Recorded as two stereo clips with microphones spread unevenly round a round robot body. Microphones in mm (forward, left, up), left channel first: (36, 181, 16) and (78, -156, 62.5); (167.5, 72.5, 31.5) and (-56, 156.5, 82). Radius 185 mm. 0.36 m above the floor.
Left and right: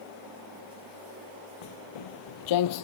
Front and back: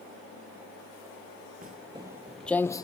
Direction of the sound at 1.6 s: 110° left.